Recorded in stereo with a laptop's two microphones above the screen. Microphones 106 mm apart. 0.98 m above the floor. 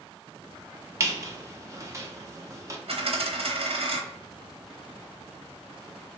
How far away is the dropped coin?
About 0.8 m.